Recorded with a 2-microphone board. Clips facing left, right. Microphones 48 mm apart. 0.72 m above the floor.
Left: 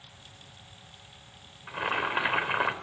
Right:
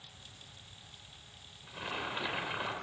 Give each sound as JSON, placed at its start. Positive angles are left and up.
{"t": 1.7, "sound": "boiling", "side_deg": 50, "distance_m": 3.0}